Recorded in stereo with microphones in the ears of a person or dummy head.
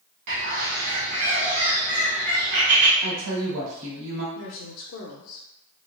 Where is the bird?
55° right (ahead or behind), 1.2 m.